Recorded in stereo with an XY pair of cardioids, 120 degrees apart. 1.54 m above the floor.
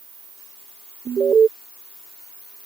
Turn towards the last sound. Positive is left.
turn(degrees=-35)